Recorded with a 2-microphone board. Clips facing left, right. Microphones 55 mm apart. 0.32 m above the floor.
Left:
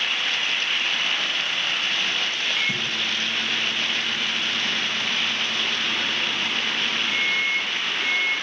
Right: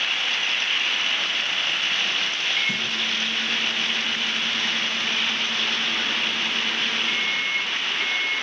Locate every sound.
2.6 s a microwave: centre (ahead or behind), 2.5 m